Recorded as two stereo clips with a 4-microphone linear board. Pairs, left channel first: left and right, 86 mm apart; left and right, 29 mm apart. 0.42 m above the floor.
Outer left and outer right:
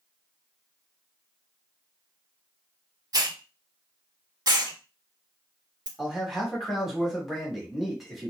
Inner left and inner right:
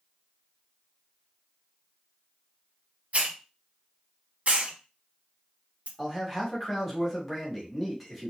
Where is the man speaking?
Centre (ahead or behind), 1.1 m.